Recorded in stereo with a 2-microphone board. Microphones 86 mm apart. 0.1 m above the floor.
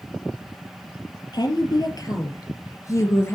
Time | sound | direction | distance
1.3 | a woman speaking | 55° left (ahead or behind) | 2.5 m